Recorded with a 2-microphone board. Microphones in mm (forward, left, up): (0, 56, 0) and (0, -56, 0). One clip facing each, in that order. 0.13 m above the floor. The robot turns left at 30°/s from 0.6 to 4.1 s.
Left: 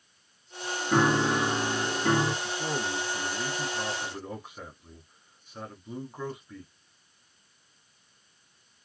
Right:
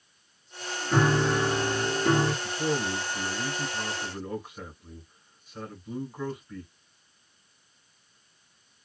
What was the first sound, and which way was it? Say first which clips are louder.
A piano: even; 20° left (ahead or behind).